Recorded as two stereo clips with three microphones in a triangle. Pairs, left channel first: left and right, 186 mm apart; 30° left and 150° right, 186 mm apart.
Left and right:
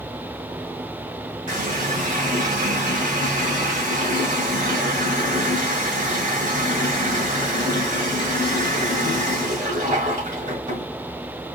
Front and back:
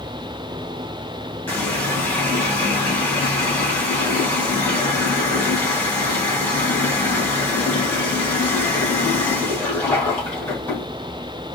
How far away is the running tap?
About 2.5 m.